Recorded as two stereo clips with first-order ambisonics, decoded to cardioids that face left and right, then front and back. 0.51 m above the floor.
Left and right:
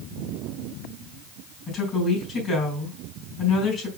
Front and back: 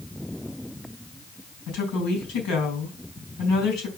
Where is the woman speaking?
25° left, 4 m.